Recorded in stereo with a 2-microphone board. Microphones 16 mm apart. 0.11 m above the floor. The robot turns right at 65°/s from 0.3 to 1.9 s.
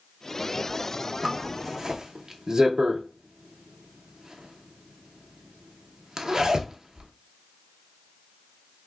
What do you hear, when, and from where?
1.2 s a zipper: 55° right (ahead or behind), 0.6 m; by 7.1 s 35° right (ahead or behind), 0.6 m